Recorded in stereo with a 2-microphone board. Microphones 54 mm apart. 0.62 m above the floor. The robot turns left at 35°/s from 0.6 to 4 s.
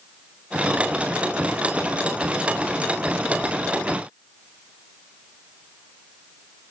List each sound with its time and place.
Only background noise.